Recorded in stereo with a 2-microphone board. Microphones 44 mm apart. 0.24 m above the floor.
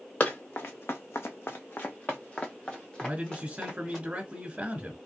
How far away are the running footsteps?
About 0.9 m.